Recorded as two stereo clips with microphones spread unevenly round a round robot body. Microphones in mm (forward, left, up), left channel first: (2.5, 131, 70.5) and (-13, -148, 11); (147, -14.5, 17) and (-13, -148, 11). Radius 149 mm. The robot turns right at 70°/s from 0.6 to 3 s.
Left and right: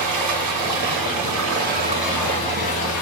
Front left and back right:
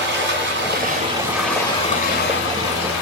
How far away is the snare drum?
I don't hear a snare drum.